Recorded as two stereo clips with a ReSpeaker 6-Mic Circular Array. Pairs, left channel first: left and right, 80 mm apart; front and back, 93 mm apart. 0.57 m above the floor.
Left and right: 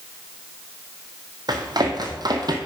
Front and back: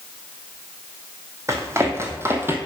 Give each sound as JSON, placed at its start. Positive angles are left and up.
{"t": 1.5, "sound": "running footsteps", "azimuth_deg": -120, "distance_m": 1.8}